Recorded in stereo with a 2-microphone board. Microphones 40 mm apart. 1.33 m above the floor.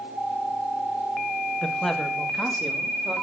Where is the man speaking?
15° left (ahead or behind), 1.8 m; by 3.2 s 5° right (ahead or behind), 3.5 m.